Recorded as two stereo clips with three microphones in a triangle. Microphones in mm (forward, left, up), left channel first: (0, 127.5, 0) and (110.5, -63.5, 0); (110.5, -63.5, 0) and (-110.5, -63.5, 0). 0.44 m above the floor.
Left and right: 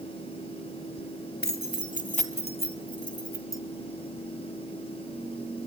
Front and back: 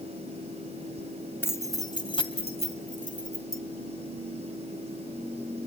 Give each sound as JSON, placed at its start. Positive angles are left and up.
{"t": 1.4, "sound": "keys jangling", "azimuth_deg": 80, "distance_m": 1.7}